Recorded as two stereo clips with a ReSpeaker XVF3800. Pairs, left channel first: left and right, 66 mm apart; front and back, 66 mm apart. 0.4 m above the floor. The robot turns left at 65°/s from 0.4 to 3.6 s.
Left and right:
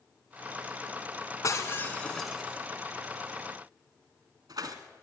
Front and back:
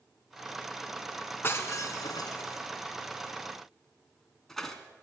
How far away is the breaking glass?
About 2.5 m.